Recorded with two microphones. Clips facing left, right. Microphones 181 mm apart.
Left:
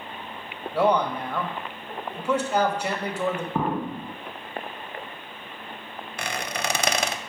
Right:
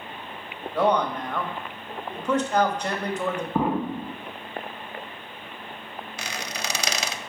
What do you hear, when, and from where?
0.7 s a man speaking: 10° left (ahead or behind), 1.2 m
3.5 s an explosion: 5° right (ahead or behind), 0.6 m
6.2 s a squeak: 50° left (ahead or behind), 0.5 m